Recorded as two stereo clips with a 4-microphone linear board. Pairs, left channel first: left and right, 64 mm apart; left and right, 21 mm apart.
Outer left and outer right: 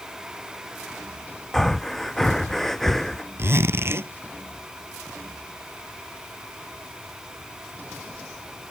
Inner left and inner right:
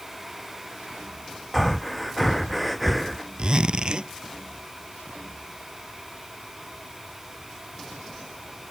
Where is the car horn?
No car horn in this recording.